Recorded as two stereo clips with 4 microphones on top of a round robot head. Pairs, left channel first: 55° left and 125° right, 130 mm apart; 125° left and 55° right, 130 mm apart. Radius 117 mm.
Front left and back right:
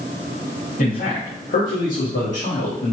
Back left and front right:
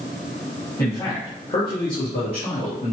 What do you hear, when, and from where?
0.8 s a man speaking: 55° left, 2 m; by 2.9 s 95° left, 1.4 m